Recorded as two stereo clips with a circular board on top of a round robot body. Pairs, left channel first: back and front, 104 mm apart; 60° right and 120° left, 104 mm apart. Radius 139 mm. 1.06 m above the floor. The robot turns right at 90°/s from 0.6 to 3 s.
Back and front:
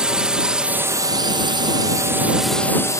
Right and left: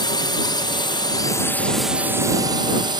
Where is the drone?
80° right; by 3.0 s 135° left.